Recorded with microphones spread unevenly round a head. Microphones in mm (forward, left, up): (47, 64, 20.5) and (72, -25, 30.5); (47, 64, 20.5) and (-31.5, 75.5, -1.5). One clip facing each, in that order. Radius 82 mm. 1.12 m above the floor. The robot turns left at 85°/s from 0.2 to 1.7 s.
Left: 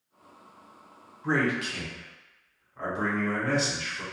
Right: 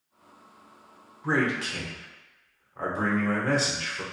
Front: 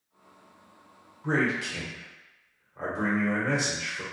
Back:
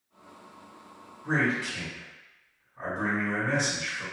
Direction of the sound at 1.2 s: 15° left.